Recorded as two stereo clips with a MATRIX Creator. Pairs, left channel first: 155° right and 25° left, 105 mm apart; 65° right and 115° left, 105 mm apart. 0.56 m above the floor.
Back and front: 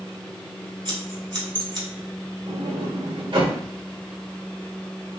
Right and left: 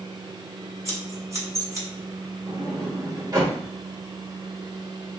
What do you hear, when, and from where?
0.8 s scissors: 55° left, 1.8 m
2.5 s a sliding door: 60° left, 1.2 m